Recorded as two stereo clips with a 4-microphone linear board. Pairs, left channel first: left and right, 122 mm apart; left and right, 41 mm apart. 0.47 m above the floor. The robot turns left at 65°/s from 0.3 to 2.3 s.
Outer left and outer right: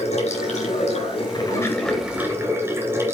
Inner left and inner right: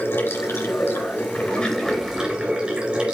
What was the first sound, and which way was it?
Running water, 110° left.